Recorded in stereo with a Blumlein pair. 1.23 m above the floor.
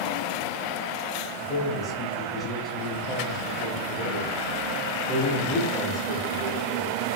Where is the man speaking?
10° left, 1.2 m.